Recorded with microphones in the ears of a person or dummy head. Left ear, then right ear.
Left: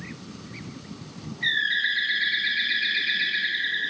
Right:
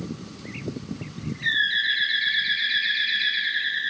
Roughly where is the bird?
Centre.